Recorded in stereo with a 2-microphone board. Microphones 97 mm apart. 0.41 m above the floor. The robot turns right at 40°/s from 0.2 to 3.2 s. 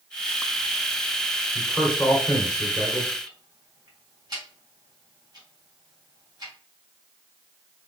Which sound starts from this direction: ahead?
A man speaking, at 1.6 s.